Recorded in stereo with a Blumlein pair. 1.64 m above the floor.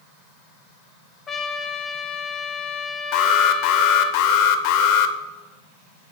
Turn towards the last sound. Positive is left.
turn(degrees=45)